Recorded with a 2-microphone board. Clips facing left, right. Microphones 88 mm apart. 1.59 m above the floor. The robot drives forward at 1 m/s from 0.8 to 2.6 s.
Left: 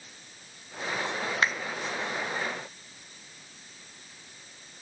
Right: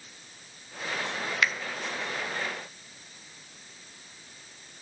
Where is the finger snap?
35° left (ahead or behind), 0.6 m.